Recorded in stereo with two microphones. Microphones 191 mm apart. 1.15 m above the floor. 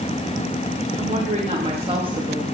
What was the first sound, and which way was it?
A woman speaking, 40° right (ahead or behind).